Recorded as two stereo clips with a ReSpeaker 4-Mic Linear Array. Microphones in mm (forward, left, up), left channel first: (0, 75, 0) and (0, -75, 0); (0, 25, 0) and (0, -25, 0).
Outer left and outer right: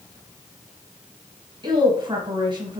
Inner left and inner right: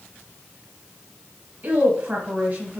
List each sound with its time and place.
1.6 s a woman speaking: 35° right (ahead or behind), 1.7 m